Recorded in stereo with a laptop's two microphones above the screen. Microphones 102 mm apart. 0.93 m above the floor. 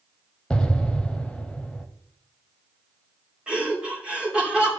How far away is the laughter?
About 2.5 m.